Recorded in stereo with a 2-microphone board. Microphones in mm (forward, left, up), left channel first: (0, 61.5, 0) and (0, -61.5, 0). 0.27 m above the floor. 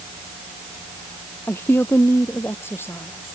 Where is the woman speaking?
20° left (ahead or behind).